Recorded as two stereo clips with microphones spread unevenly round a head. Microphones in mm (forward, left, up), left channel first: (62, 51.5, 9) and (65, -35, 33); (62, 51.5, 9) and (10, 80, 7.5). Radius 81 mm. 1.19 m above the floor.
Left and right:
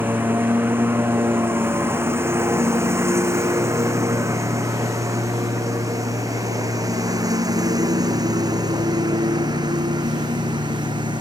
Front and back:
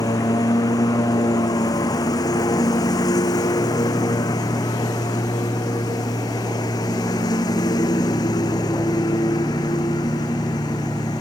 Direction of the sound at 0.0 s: 20° right.